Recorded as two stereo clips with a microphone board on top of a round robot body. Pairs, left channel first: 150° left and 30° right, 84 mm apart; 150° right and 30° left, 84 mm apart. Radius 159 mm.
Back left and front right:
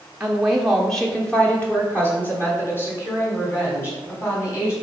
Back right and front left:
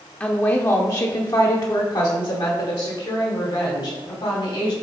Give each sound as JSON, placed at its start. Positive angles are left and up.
{"t": 0.2, "sound": "a woman speaking", "azimuth_deg": -95, "distance_m": 0.9}